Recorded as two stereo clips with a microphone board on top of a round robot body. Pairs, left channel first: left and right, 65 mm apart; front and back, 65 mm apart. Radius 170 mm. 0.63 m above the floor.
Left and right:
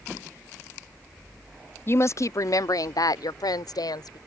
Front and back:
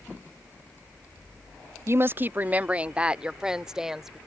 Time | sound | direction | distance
1.9 | a woman speaking | 140° left | ?